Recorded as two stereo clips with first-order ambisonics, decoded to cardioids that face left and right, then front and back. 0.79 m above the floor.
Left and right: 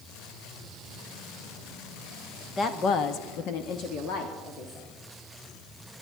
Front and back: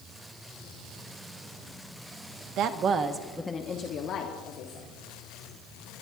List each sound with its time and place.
2.6 s a woman speaking: 150° left, 1.1 m; by 4.9 s 40° left, 2 m